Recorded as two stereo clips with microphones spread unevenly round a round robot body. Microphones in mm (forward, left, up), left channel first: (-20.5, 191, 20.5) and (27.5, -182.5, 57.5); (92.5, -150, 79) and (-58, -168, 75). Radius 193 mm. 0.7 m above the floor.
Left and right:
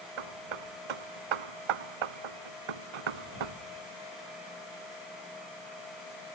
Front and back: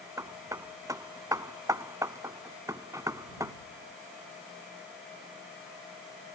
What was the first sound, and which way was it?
Hammering, 100° right.